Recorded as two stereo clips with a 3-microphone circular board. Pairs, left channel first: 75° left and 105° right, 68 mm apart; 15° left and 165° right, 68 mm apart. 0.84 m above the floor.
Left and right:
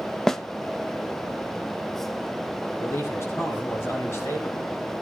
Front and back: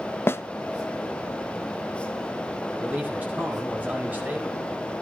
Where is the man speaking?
130° left, 4.5 m.